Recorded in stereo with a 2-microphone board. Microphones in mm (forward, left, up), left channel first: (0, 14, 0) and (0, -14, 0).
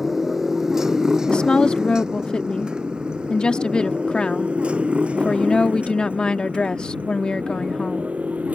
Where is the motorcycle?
15° right (ahead or behind); by 8.6 s 65° right (ahead or behind).